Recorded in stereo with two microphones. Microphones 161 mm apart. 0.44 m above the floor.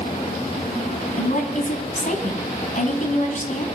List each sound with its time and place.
1.2 s a woman speaking: 55° left (ahead or behind), 3 m